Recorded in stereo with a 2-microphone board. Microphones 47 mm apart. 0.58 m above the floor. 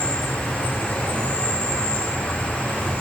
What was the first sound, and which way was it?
An insect, 25° left (ahead or behind).